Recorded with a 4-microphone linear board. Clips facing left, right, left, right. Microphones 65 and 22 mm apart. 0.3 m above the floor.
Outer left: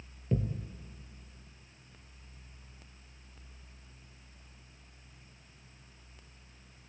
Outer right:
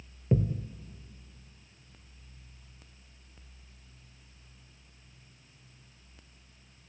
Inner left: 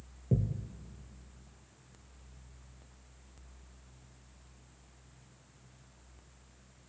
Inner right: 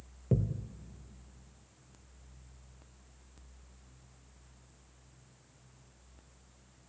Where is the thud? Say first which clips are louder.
Outer right 5 dB, inner right 1 dB; 20° right (ahead or behind), 1.1 m.